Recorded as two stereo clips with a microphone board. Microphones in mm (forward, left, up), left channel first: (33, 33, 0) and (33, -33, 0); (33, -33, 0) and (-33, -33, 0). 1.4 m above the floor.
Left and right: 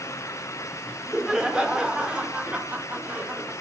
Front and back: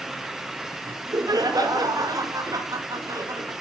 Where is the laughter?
170° right, 4.5 m; by 3.5 s 150° right, 4 m.